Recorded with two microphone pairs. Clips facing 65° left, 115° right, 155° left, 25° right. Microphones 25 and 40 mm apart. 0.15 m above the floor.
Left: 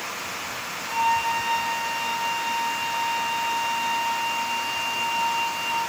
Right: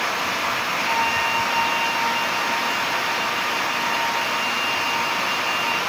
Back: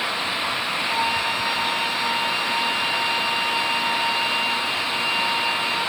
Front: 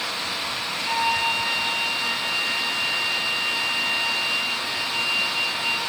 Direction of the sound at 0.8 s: 90° right.